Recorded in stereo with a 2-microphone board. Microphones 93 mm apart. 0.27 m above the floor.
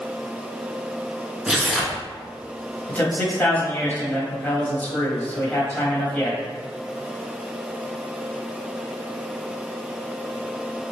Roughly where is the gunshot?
I don't hear a gunshot.